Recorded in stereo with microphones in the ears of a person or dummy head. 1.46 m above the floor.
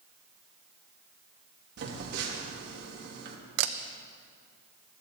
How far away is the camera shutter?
About 0.8 m.